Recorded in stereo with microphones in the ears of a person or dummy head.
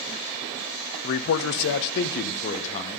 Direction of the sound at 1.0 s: 50° left (ahead or behind).